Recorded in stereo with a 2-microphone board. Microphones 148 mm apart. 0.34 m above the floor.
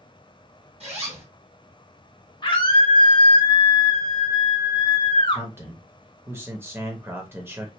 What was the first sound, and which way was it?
A zipper, 40° right (ahead or behind).